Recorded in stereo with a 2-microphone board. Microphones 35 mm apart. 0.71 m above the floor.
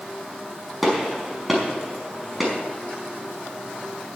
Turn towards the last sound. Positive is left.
turn(degrees=0)  # may be behind; listen again after turning